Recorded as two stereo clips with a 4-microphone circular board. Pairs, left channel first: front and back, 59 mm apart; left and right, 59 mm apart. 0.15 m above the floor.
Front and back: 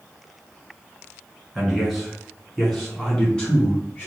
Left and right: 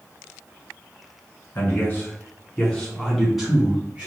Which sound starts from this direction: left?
A man speaking, at 1.6 s.